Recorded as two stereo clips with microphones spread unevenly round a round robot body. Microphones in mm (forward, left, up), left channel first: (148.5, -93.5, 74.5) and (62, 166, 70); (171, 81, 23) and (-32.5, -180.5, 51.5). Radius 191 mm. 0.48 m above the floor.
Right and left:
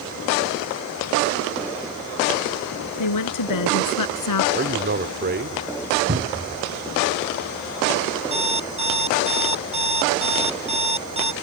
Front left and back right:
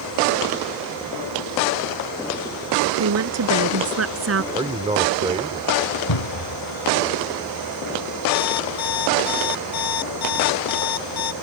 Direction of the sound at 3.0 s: 85° right.